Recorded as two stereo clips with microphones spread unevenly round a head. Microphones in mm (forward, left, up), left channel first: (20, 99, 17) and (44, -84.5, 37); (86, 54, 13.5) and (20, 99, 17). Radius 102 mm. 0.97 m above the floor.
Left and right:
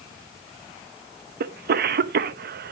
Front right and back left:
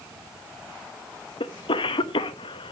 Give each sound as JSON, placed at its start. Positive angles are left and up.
{"t": 1.4, "sound": "a cough", "azimuth_deg": -45, "distance_m": 1.1}